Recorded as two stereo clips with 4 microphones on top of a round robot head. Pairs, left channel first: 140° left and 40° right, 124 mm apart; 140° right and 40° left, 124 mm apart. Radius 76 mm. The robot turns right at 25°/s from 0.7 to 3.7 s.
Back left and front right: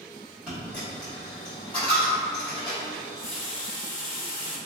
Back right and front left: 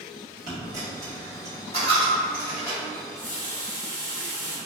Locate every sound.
0.5 s a dropped coin: 40° left, 1.5 m; by 2.8 s 90° left, 1.5 m
2.9 s a running tap: 130° left, 1.2 m; by 4.6 s 150° left, 1.2 m